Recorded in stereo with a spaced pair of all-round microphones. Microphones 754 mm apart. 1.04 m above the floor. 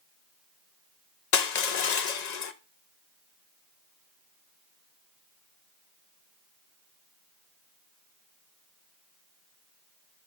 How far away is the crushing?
About 0.7 m.